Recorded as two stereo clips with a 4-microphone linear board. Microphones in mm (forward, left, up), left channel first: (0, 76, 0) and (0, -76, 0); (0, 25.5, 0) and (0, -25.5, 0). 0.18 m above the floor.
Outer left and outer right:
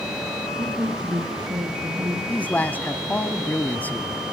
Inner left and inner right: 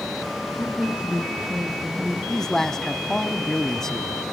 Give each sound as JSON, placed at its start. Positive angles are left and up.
{"t": 0.6, "sound": "a woman speaking", "side_deg": -25, "distance_m": 2.5}
{"t": 2.3, "sound": "a man speaking", "side_deg": 10, "distance_m": 1.0}